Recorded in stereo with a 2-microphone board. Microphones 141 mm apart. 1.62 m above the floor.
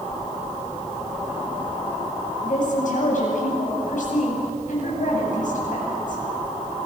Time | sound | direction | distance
2.4 | a woman speaking | 65° left (ahead or behind) | 9 m